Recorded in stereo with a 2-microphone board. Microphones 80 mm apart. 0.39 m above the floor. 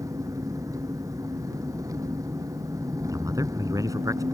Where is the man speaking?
45° right (ahead or behind).